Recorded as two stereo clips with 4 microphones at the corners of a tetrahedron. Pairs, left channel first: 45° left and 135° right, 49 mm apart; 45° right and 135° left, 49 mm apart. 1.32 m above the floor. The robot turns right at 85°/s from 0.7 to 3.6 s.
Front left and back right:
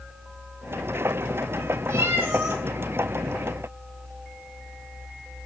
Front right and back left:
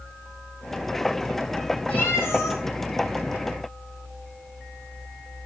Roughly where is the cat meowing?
Behind right.